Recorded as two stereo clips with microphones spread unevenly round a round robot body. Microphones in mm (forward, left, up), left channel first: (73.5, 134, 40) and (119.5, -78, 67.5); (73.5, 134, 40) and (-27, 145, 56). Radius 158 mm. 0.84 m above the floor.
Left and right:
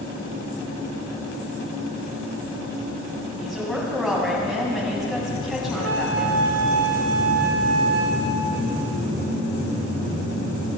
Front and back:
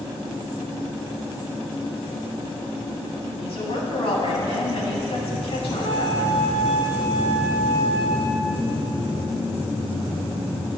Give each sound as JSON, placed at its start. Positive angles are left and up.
{"t": 3.4, "sound": "a woman speaking", "azimuth_deg": 10, "distance_m": 6.0}
{"t": 5.7, "sound": "a flute", "azimuth_deg": -80, "distance_m": 1.5}